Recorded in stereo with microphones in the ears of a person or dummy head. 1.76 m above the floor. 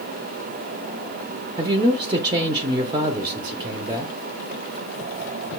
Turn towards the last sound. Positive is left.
turn(degrees=-20)  # may be behind; listen again after turning